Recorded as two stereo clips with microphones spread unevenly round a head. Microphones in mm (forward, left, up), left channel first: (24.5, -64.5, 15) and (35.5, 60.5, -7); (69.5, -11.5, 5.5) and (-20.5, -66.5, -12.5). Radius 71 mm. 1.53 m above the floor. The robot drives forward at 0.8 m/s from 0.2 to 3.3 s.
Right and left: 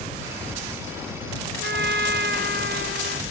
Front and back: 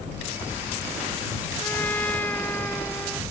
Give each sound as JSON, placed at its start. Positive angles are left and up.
{"t": 1.6, "sound": "a trumpet", "azimuth_deg": 110}